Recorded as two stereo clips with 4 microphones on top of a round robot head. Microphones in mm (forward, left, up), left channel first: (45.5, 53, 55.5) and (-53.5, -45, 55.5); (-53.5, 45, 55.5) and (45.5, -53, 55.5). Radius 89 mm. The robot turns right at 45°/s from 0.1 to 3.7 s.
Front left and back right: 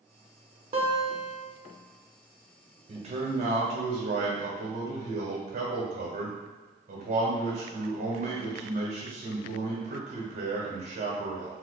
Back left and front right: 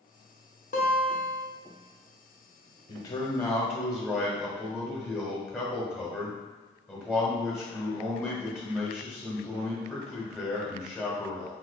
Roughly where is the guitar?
Behind.